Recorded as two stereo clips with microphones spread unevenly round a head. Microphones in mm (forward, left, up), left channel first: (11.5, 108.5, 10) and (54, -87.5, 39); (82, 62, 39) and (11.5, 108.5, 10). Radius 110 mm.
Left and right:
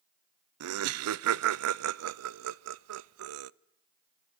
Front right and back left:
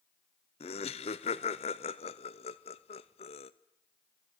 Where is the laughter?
70° right, 0.5 m.